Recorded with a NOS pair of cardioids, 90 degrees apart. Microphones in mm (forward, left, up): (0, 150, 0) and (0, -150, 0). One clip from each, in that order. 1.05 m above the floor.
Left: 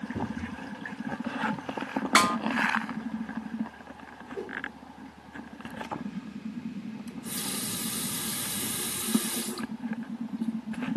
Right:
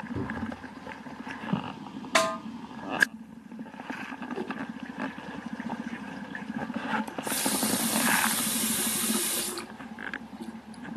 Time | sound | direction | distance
0.1 | a cupboard door | 25° right | 4 m
2.1 | a snare drum | 20° left | 0.8 m
4.3 | a whoosh | 50° right | 2 m
7.1 | a running tap | 35° right | 1.2 m